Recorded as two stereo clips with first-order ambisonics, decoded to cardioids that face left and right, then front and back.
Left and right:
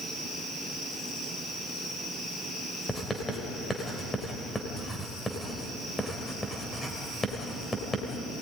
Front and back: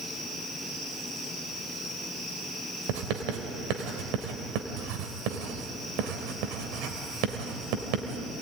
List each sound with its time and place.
2.9 s writing: 170° left, 3 m